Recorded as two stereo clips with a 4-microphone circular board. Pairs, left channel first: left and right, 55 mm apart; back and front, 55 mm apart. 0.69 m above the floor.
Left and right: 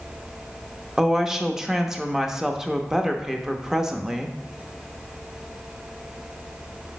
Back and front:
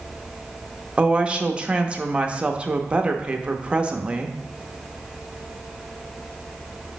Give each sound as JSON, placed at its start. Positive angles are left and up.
{"t": 1.0, "sound": "a woman speaking", "azimuth_deg": -20, "distance_m": 0.7}